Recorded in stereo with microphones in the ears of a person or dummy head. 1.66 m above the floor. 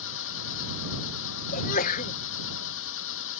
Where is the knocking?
No knocking in this recording.